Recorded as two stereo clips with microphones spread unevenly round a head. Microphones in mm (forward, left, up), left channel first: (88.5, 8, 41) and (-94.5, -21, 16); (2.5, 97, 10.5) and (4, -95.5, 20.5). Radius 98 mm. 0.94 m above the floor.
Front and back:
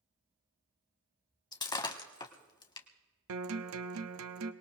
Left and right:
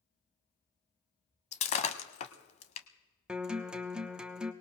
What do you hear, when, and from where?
1.5 s breaking glass: 50° left, 0.9 m
3.3 s a guitar: 175° right, 0.9 m